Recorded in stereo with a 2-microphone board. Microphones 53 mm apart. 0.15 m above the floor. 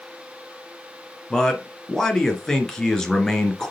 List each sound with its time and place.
1.3 s a man speaking: 10° left (ahead or behind), 2.5 m